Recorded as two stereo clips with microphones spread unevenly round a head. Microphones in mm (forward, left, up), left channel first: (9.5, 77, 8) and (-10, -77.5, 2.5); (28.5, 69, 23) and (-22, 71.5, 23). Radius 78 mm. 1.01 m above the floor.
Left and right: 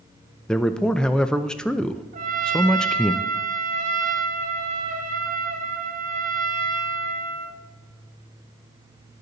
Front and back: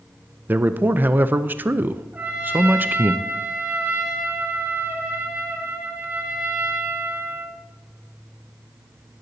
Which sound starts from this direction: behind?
A man speaking, at 0.5 s.